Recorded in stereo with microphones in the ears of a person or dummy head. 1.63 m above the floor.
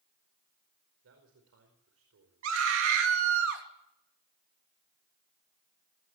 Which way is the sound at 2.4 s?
60° right (ahead or behind).